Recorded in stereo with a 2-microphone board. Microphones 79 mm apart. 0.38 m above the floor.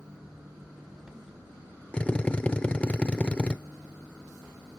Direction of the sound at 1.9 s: 15° left (ahead or behind).